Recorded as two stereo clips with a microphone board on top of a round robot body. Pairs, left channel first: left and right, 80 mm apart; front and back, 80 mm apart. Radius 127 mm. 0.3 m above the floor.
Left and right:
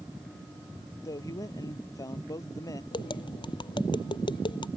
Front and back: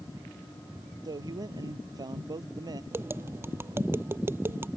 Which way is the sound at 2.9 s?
115° left.